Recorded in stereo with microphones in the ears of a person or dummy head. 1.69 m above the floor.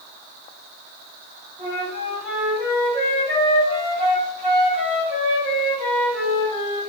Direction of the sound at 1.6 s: 35° right (ahead or behind).